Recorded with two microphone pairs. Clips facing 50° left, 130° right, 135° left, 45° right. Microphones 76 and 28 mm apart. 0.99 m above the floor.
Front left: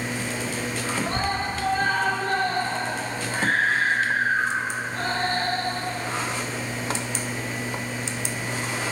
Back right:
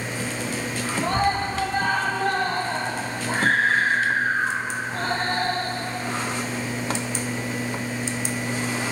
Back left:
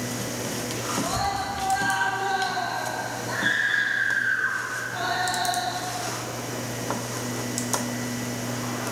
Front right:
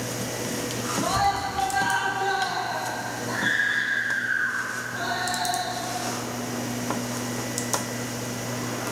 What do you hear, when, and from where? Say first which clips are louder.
1.0 s a scream: back right 7 dB, front right 5 dB; 115° right, 7.5 m; by 5.7 s 175° right, 7.5 m